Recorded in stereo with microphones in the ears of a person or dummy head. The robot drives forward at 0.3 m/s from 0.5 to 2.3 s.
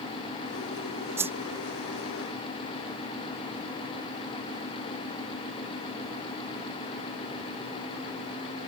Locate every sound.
1.2 s a whoosh: 10° right (ahead or behind)